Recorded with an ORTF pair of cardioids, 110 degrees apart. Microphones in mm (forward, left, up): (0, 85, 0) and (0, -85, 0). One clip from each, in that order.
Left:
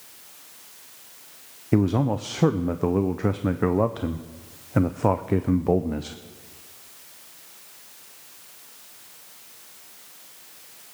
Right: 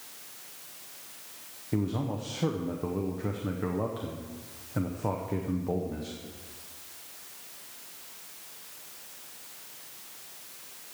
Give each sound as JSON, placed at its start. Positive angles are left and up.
{"t": 1.7, "sound": "a man speaking", "azimuth_deg": 50, "distance_m": 0.6}